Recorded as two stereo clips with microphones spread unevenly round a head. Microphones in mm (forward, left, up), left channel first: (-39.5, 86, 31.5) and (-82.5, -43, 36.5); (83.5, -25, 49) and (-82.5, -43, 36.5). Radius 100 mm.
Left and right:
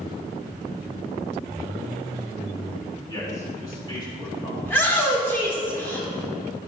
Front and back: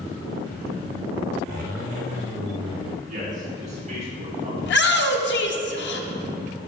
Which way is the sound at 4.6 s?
5° right.